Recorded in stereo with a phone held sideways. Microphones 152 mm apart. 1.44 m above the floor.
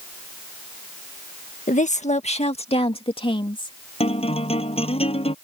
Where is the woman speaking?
55° left (ahead or behind); by 3.8 s 30° left (ahead or behind).